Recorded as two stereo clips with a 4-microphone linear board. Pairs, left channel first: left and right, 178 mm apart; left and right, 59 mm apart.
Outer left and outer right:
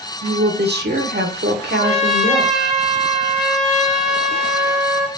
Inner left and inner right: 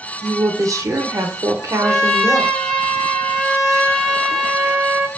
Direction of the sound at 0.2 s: 70° right (ahead or behind).